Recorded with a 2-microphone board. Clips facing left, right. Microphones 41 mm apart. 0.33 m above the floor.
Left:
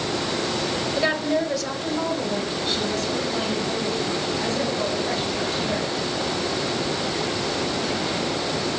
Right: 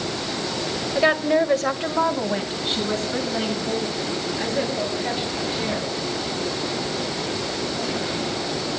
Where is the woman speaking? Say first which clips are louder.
Right 5 dB; 15° right (ahead or behind), 1.2 m; by 5.9 s 35° right (ahead or behind), 7 m.